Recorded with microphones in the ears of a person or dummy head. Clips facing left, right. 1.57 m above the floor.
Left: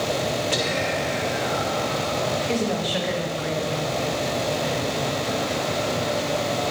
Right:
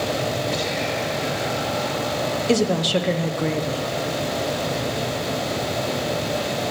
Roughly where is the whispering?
Left.